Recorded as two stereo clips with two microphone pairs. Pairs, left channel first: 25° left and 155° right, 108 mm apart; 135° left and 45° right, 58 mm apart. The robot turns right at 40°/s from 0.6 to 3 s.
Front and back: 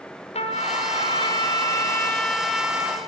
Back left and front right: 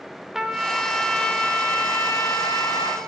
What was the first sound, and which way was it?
A trumpet, 45° left.